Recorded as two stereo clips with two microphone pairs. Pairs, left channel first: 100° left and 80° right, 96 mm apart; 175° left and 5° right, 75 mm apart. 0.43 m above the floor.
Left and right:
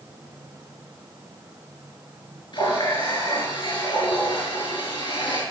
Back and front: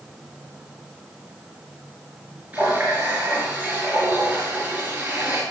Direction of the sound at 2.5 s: 65° left.